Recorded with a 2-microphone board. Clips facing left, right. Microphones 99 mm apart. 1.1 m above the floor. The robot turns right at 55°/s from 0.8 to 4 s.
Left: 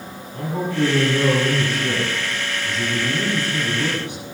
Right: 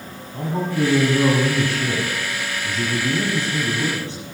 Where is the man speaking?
160° right, 8.5 m; by 4.2 s 15° left, 8.5 m.